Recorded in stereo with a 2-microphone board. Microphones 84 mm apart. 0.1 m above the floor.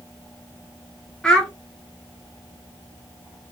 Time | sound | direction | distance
1.2 | a child speaking | 10° left (ahead or behind) | 0.7 m